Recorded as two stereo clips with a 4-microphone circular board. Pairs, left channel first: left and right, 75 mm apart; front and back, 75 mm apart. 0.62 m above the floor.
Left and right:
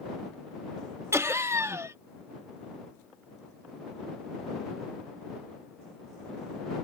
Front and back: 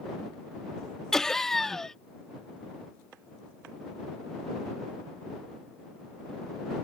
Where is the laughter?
80° right.